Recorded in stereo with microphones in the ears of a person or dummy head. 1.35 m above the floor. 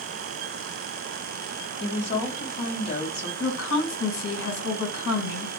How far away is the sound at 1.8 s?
About 1.1 m.